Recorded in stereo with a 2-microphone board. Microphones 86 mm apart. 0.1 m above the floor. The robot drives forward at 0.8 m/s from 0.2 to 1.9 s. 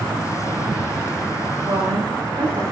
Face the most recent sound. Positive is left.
turn(degrees=-65)  # may be behind; listen again after turning